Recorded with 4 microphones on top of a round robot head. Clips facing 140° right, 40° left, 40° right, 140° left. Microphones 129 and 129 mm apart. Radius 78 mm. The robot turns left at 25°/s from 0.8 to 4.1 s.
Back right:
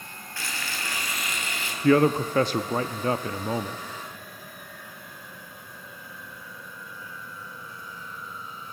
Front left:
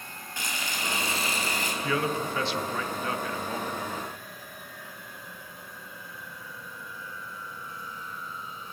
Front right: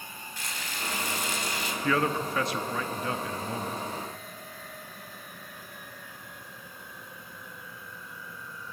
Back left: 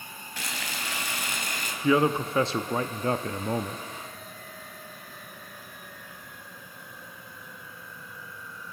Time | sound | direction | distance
0.4 | frying | 115° left | 3.5 m
1.8 | a man speaking | 150° right | 0.7 m